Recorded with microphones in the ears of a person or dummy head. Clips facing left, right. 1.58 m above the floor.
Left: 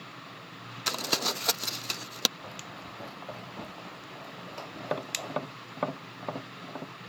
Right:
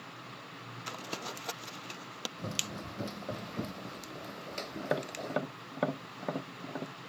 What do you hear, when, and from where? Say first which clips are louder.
0.9 s crumpling: left 8 dB; 75° left (ahead or behind)
2.4 s running footsteps: right 4 dB; 45° right (ahead or behind); by 5.4 s 25° right (ahead or behind)
4.8 s tapping: even; 10° right (ahead or behind)